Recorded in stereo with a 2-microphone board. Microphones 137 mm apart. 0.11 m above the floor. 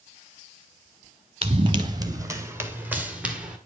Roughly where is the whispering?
No whispering in this recording.